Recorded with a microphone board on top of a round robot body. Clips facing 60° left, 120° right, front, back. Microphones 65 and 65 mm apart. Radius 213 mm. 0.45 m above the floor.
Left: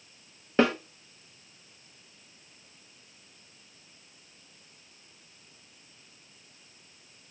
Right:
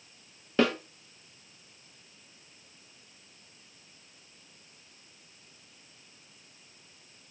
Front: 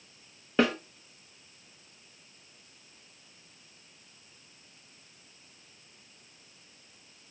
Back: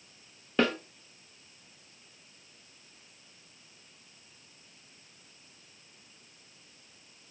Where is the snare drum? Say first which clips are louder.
Left 2 dB, front 2 dB; 70° left, 1.3 m.